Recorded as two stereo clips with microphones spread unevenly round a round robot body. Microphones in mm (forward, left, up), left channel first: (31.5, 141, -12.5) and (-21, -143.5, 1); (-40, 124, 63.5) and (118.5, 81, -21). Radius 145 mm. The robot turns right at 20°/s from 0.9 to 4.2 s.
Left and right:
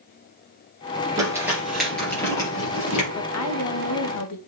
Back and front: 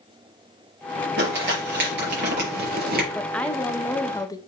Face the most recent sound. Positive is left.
turn(degrees=80)